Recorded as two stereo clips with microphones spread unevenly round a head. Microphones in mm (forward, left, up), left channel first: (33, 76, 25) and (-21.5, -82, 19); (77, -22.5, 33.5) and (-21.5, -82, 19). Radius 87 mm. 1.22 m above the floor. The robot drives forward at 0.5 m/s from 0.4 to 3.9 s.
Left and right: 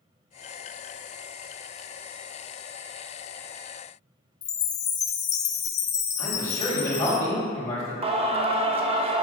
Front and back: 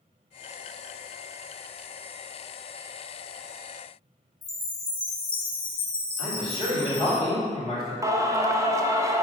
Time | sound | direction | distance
4.4 | a chime | 115° left | 0.6 m
6.2 | a man speaking | 145° left | 2 m
8.0 | singing | 125° right | 0.6 m